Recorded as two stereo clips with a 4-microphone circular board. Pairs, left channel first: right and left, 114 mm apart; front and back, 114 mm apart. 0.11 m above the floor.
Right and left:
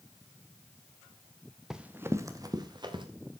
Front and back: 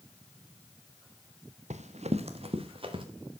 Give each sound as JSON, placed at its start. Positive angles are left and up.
{"t": 1.7, "sound": "running footsteps", "azimuth_deg": 175, "distance_m": 1.2}